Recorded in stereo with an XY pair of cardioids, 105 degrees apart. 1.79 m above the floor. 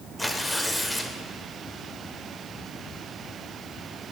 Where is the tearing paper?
5° left, 0.7 m.